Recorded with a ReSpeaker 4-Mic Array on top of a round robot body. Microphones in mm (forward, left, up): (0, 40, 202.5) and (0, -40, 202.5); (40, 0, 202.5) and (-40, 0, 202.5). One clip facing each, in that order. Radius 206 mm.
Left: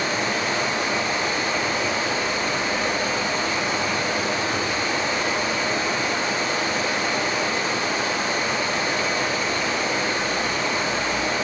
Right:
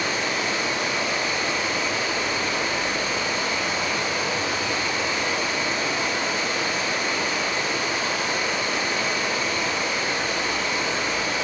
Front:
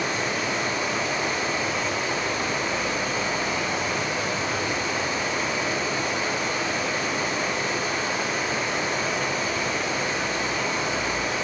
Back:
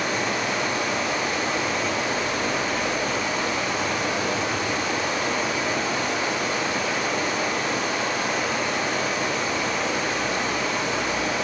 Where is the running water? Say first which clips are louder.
Left 2 dB, back 1 dB; 150° left, 1.2 m.